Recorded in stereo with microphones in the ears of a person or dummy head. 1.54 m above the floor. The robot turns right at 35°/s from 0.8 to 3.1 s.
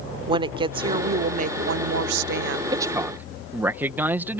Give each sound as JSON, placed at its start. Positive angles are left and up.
{"t": 0.3, "sound": "a woman speaking", "azimuth_deg": -150}
{"t": 2.7, "sound": "a man speaking", "side_deg": -20}